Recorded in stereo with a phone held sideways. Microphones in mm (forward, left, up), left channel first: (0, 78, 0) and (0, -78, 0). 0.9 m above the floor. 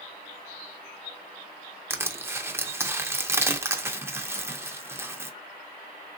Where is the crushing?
15° right (ahead or behind), 0.5 m.